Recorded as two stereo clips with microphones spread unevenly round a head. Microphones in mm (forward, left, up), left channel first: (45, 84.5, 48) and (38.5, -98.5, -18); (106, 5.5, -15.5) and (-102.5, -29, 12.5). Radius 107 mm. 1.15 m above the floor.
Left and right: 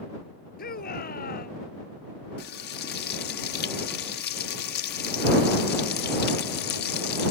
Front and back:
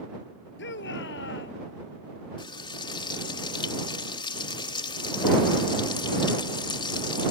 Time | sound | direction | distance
0.6 | a shout | 50° left | ?
2.4 | frying | 80° left | ?